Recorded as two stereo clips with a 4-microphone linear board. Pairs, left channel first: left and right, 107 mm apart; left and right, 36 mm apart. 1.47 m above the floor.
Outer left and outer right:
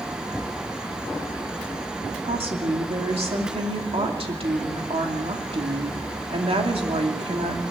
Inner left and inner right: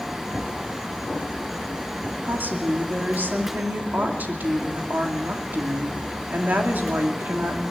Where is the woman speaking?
65° right (ahead or behind), 2.5 m.